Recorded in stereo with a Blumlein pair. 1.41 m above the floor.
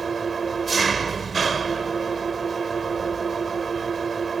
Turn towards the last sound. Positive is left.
turn(degrees=-15)